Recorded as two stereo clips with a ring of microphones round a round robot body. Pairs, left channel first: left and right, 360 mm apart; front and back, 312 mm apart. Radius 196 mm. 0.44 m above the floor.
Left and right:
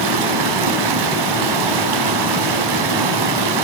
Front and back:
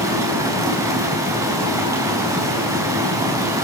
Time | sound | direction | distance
0.0 | running water | 100° right | 4 m